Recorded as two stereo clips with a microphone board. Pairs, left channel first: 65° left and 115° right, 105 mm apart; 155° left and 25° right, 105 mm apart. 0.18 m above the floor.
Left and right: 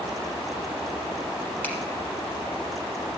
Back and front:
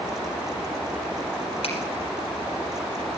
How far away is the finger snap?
About 3.5 m.